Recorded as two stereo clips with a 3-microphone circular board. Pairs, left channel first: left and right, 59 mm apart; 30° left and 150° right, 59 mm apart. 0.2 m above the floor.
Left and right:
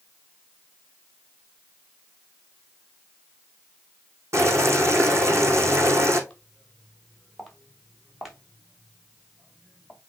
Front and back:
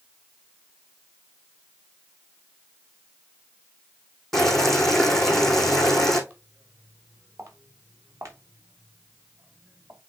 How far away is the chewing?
I don't hear chewing.